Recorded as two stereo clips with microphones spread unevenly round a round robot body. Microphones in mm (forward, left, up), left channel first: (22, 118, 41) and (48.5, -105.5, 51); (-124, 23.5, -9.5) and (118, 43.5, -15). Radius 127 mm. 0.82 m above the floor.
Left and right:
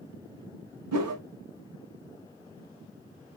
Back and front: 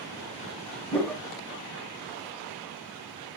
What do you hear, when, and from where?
0.9 s a whoosh: 95° right, 0.9 m